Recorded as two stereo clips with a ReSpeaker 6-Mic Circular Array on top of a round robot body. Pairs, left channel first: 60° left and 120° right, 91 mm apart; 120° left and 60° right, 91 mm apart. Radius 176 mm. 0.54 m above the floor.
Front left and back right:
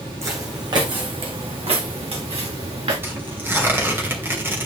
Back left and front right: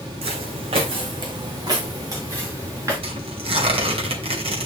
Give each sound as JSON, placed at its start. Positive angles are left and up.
{"t": 0.2, "sound": "footsteps", "azimuth_deg": -60, "distance_m": 1.7}
{"t": 3.0, "sound": "tearing paper", "azimuth_deg": -55, "distance_m": 2.5}